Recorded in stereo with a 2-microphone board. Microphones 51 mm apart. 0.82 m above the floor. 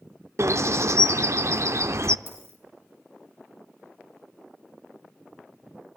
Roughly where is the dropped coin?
Right.